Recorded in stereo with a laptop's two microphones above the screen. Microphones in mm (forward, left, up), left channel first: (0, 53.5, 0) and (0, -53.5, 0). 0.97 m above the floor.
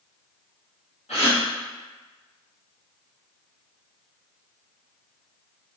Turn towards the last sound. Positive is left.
turn(degrees=80)